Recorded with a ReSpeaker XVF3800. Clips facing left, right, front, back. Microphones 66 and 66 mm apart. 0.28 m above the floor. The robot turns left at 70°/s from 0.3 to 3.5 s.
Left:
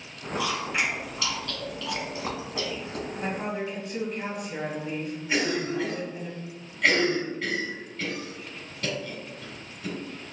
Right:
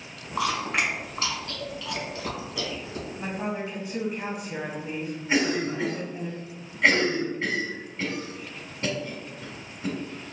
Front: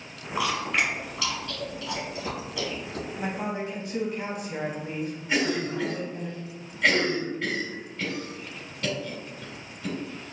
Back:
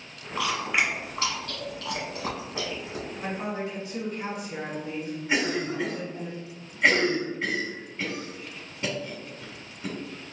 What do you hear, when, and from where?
0.4 s chewing: 70° right, 1.4 m; by 3.1 s 100° left, 1.4 m
3.2 s a woman speaking: 15° left, 1.6 m; by 6.3 s 10° right, 1.6 m
5.3 s a cough: 125° right, 1.7 m